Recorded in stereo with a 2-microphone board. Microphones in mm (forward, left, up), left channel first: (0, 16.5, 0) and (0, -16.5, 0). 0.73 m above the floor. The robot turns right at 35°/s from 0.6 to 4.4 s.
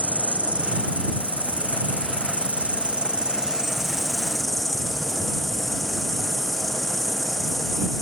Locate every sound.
0.0 s an insect: 125° right; by 8.0 s 5° left